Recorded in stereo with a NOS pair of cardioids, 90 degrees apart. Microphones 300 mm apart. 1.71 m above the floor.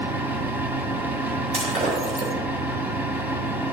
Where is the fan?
5° right, 1.4 m.